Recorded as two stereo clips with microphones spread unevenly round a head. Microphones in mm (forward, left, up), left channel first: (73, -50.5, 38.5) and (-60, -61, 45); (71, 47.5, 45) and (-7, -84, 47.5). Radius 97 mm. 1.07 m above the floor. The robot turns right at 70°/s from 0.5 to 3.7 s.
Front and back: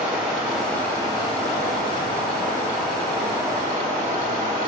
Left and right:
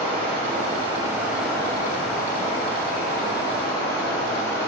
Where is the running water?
95° right, 1.5 m; by 4.7 s 130° left, 1.5 m.